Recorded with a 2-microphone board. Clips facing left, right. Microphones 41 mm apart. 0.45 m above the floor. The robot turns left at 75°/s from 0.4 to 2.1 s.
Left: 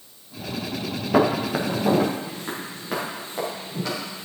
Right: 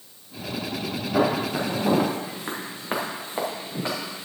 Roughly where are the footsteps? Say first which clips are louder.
Left 3 dB; left.